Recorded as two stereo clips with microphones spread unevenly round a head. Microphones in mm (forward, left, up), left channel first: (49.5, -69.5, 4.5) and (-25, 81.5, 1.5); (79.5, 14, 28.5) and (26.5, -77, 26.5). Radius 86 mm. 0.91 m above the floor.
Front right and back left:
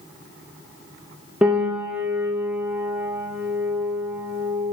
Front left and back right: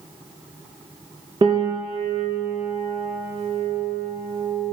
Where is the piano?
160° right, 0.5 m.